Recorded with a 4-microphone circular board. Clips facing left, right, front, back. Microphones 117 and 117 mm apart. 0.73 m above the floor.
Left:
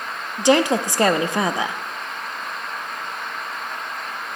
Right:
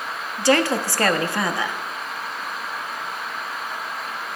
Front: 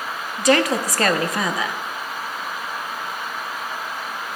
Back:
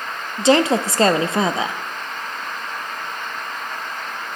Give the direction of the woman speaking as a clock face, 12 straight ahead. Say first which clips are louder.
Left 2 dB, back 3 dB; 7 o'clock.